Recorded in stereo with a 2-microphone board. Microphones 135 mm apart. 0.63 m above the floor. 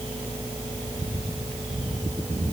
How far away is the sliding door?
No sliding door in this recording.